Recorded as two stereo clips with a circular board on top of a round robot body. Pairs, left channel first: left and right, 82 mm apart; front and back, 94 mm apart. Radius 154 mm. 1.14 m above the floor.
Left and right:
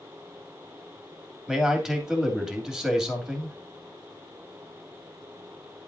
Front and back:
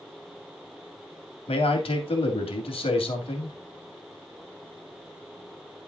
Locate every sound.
1.5 s a man speaking: 5° right, 2.5 m